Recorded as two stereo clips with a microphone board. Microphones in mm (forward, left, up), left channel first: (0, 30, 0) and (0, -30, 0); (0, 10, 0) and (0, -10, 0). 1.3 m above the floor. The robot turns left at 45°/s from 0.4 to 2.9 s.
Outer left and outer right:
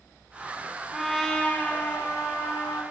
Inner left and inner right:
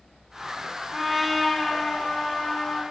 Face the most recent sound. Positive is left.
turn(degrees=95)